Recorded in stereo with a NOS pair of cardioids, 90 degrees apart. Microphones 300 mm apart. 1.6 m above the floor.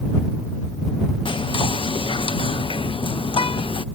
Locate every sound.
1.2 s whispering: 15° left